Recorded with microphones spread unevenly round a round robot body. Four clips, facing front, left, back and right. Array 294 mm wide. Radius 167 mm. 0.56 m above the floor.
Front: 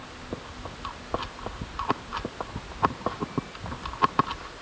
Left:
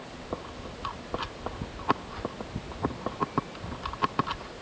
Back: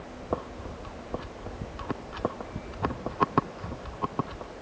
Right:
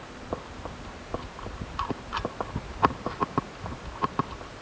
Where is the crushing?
No crushing in this recording.